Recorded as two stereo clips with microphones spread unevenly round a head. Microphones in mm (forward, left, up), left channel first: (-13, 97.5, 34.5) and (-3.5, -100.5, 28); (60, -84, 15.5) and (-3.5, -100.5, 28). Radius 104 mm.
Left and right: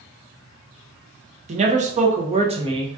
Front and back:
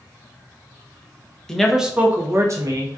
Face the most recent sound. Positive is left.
turn(degrees=-150)